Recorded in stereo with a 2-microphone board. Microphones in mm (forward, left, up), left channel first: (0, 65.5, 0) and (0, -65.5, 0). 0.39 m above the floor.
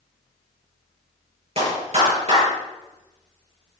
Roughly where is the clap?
Right.